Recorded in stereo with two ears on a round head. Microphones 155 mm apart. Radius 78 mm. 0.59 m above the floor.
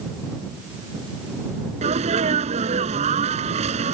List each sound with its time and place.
1.8 s a sneeze: 40° right (ahead or behind)